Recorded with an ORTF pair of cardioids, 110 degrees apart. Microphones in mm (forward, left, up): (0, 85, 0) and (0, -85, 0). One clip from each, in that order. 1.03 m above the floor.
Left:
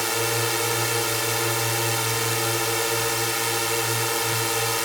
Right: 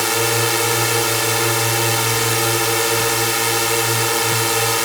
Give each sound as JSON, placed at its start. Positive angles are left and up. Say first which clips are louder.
{"t": 0.0, "sound": "a drone", "louder": "right 6 dB", "azimuth_deg": -35}